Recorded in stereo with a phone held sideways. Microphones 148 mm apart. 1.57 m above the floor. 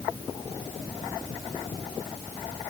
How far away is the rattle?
No rattle in this recording.